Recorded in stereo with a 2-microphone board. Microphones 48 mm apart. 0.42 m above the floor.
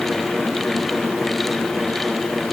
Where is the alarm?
No alarm in this recording.